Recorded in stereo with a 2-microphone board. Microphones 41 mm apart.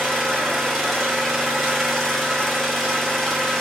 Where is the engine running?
5° left (ahead or behind), 1.3 m.